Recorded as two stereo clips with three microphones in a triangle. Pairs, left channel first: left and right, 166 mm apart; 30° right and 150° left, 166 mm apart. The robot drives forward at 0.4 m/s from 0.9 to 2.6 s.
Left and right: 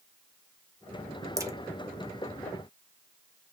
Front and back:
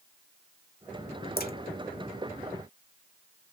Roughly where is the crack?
Ahead.